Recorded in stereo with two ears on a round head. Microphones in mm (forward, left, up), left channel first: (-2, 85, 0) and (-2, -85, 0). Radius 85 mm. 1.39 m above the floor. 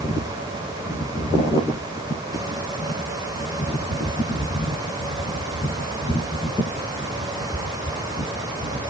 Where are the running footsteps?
No running footsteps in this recording.